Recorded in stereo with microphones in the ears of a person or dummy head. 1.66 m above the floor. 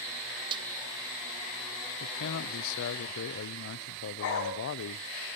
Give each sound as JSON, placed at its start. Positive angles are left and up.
{"t": 0.5, "sound": "a snare drum", "side_deg": -30, "distance_m": 0.5}
{"t": 2.0, "sound": "a man speaking", "side_deg": 70, "distance_m": 0.7}
{"t": 4.2, "sound": "a dog barking", "side_deg": 70, "distance_m": 5.5}